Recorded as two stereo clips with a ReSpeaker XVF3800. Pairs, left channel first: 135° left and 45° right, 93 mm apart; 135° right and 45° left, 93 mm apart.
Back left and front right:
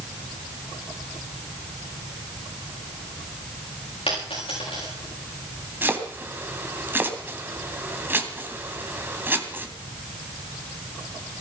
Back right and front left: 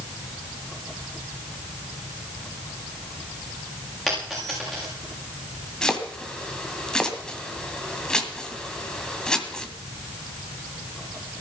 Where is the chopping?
65° right, 1.7 m.